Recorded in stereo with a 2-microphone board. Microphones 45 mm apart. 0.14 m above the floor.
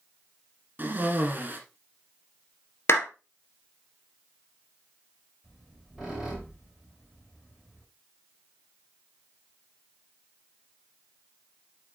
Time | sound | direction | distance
0.8 | a cough | 40° right (ahead or behind) | 1.8 m
2.9 | a clap | 55° left (ahead or behind) | 1.8 m
5.4 | a squeak | centre (ahead or behind) | 5 m